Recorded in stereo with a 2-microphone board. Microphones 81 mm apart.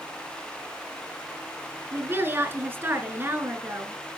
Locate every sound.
1.9 s a woman speaking: 30° right (ahead or behind), 1.6 m